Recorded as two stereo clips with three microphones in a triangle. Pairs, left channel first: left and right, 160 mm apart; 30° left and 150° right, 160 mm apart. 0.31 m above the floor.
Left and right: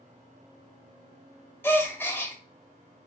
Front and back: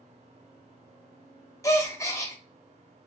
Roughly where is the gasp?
Ahead left.